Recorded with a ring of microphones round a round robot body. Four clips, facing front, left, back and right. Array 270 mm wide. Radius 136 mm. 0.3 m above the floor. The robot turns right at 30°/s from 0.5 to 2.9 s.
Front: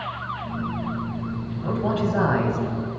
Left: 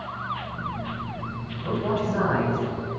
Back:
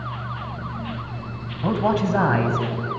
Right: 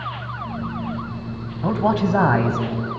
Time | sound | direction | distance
1.6 | a man speaking | 125° right | 2.5 m